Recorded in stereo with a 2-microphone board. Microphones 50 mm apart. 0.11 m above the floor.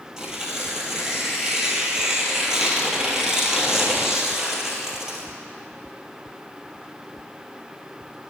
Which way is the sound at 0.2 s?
10° right (ahead or behind).